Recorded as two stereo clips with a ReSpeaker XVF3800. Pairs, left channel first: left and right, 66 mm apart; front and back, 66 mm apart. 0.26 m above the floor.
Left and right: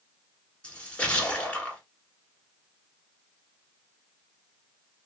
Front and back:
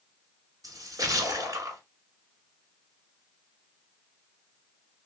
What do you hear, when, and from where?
0.6 s a splash: 160° left, 1.3 m